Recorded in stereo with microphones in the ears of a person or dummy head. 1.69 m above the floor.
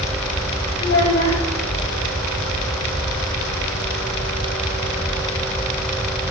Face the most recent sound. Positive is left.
turn(degrees=60)  # may be behind; listen again after turning